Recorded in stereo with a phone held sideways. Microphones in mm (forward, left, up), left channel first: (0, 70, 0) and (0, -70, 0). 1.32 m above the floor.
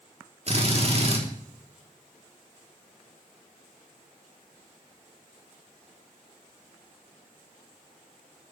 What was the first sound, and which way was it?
A drill, 50° right (ahead or behind).